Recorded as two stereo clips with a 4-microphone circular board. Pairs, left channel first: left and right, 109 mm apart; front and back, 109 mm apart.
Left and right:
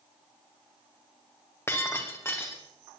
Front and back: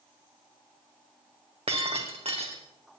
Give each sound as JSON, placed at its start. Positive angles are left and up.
{"t": 1.7, "sound": "breaking glass", "azimuth_deg": 155, "distance_m": 3.0}